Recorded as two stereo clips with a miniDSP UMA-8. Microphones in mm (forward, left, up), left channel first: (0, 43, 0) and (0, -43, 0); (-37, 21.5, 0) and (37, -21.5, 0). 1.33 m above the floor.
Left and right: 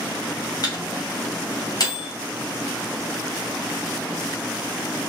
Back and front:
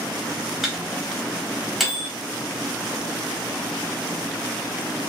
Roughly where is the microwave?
Ahead left.